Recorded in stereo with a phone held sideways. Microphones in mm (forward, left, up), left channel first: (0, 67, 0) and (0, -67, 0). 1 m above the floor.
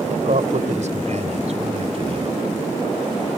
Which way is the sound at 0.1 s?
70° right (ahead or behind).